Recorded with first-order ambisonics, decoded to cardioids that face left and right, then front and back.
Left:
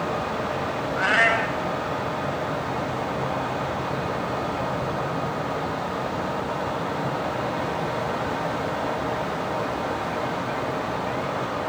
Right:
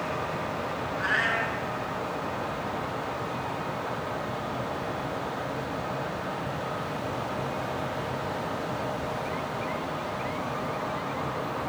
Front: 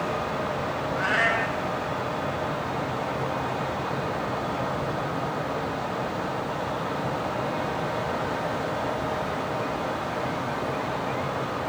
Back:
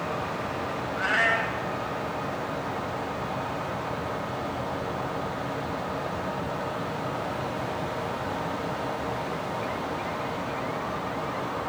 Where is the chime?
I don't hear a chime.